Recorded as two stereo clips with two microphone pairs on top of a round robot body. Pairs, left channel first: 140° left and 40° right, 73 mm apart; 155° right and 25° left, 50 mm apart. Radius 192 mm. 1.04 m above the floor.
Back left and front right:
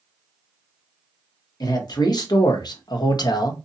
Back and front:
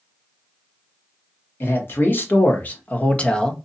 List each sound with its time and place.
1.6 s a man speaking: 165° left, 1.4 m; by 3.5 s 130° left, 0.7 m